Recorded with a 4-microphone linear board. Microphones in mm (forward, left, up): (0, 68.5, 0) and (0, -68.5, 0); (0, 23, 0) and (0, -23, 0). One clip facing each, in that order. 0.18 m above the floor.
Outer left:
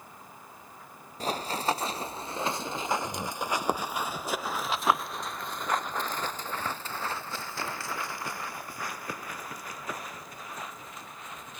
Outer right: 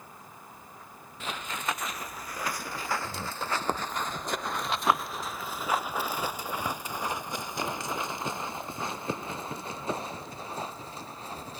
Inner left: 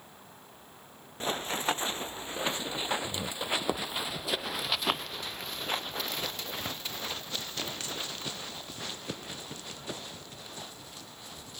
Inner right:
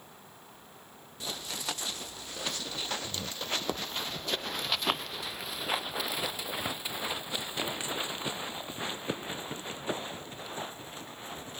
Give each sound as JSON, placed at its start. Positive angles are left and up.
{"t": 1.2, "sound": "running footsteps", "side_deg": 40}